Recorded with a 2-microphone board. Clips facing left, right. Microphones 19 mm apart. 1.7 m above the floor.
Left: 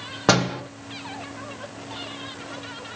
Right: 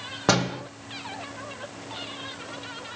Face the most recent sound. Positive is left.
turn(degrees=15)  # may be behind; listen again after turning